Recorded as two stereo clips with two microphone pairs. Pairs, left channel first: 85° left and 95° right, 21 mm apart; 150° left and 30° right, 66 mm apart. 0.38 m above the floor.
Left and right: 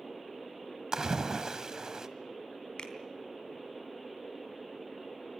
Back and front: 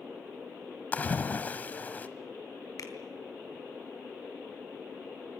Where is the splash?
145° right, 1.4 m.